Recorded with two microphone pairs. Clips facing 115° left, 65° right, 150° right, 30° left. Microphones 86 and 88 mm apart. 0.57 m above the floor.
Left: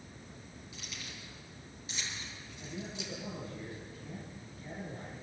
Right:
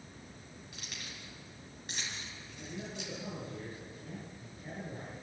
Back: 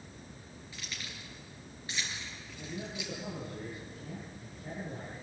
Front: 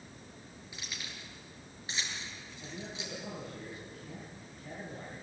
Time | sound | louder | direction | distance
0.7 | keys jangling | even, even | 45° right | 6 m
2.6 | a man speaking | even, back 3 dB | 115° right | 8 m